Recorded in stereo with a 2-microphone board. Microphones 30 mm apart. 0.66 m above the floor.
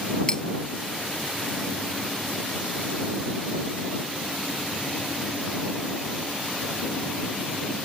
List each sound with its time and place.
0.3 s cutlery clinking: 25° left (ahead or behind)